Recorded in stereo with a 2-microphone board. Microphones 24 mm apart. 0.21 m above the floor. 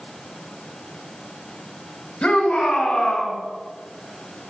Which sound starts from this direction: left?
A shout, at 2.2 s.